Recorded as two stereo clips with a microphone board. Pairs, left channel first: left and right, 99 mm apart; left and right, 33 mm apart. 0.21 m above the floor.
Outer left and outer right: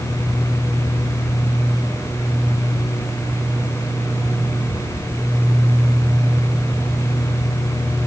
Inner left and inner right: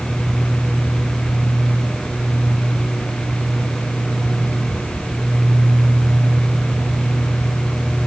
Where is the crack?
No crack in this recording.